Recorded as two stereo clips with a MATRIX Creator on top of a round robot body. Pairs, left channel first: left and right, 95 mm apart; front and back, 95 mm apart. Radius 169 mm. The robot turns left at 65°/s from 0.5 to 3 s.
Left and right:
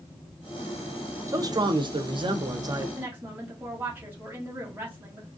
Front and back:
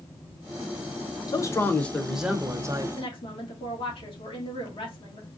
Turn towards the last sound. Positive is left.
turn(degrees=-20)